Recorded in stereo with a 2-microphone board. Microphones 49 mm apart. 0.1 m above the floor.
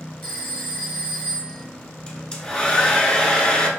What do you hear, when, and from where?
0.2 s a phone ringing: 45° left (ahead or behind), 1.3 m
2.1 s a hair dryer: 20° left (ahead or behind), 0.8 m